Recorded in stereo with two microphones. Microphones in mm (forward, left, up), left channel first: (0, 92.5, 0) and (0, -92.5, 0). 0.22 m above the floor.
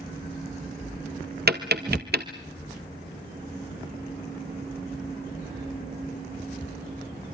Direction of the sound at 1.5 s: 60° right (ahead or behind).